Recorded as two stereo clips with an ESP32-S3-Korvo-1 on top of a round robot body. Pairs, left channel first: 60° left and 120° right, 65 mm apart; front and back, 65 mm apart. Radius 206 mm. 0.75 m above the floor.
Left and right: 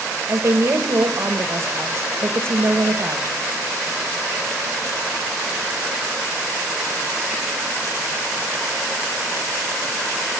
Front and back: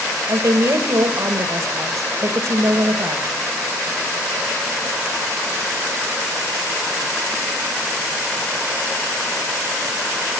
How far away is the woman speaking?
About 1.2 m.